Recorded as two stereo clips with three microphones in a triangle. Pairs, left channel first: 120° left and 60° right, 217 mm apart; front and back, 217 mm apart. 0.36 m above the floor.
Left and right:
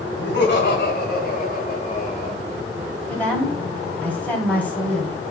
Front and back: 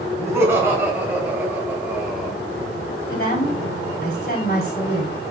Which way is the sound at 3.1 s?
40° left.